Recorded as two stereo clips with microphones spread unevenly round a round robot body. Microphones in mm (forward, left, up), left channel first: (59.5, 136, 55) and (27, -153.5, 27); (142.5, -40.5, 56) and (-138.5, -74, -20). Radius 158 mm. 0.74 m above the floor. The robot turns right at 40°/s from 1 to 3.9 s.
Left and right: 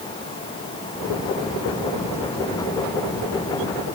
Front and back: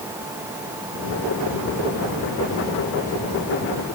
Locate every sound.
Only background noise.